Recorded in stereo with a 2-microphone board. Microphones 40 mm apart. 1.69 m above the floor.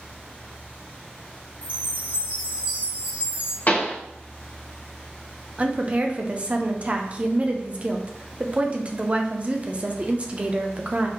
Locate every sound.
1.6 s a chime: 40° right (ahead or behind), 1.5 m
3.7 s a pop: 40° left (ahead or behind), 1.2 m
5.6 s a woman speaking: 30° right (ahead or behind), 0.7 m